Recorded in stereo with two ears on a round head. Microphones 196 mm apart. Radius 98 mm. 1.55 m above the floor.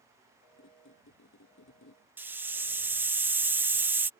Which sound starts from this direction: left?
A squeak, at 0.6 s.